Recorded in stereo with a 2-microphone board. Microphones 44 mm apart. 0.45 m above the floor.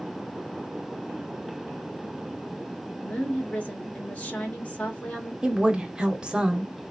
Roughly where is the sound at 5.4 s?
Centre.